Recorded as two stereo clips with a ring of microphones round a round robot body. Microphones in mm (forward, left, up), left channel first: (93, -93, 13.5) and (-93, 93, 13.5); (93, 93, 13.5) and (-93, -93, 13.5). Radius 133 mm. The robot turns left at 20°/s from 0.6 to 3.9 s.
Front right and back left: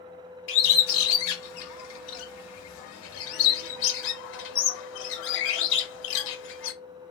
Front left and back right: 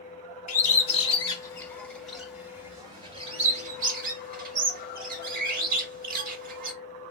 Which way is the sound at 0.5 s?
15° right.